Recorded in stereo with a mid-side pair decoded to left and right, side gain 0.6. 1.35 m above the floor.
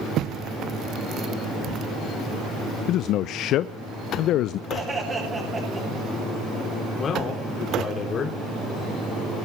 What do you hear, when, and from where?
2.9 s a man speaking: 60° left, 0.5 m
4.7 s laughter: 25° right, 7.5 m
6.9 s a man speaking: 40° left, 3 m